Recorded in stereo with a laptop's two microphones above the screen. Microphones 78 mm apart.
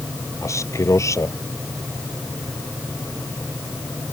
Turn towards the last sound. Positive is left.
turn(degrees=45)  # may be behind; listen again after turning